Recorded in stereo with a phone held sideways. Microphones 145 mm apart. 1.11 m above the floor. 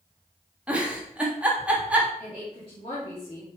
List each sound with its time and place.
0.7 s a giggle: 10° right (ahead or behind), 1.4 m
2.2 s a woman speaking: 40° left (ahead or behind), 2.5 m